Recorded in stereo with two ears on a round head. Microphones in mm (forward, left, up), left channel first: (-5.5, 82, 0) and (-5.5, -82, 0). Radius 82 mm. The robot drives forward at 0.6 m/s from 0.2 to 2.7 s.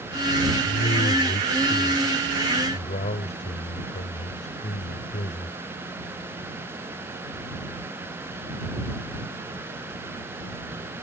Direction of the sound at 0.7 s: 45° left (ahead or behind).